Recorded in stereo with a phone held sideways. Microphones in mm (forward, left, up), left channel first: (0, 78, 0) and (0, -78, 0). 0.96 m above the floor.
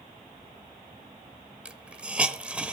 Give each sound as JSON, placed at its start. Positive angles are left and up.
{"t": 1.6, "sound": "a hiss", "side_deg": -10, "distance_m": 0.9}